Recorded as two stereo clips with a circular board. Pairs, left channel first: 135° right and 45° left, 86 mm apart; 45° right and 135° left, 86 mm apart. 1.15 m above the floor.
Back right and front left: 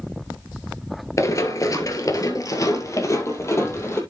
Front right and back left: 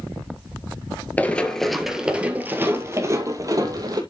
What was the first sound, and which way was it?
Running footsteps, 110° right.